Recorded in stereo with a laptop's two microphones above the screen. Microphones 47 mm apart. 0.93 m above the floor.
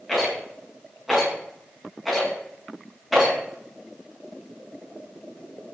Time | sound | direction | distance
0.1 | a rattle | centre (ahead or behind) | 5.5 m